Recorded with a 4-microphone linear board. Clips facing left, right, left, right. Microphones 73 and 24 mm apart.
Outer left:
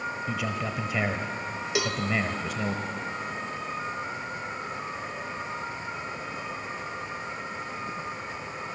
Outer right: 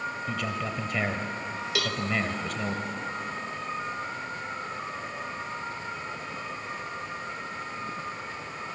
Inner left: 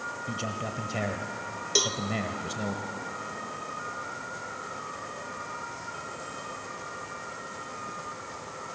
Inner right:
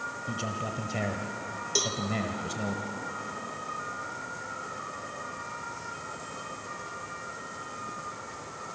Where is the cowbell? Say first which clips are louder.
Outer left 3 dB, inner left 3 dB; 20° left (ahead or behind), 1.2 m.